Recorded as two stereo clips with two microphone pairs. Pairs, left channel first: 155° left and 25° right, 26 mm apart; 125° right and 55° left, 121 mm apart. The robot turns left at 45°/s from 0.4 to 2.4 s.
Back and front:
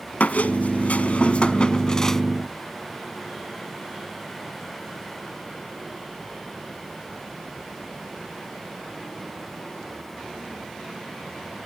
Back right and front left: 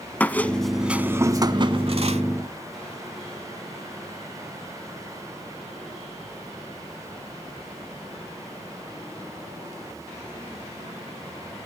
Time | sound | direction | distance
0.2 | a squeak | 160° left | 0.6 m